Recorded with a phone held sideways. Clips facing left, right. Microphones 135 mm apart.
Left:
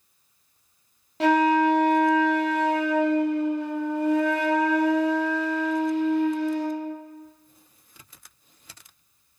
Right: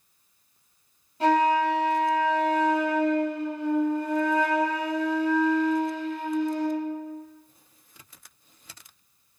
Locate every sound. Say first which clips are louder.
1.2 s a flute: left 2 dB; 80° left, 0.6 m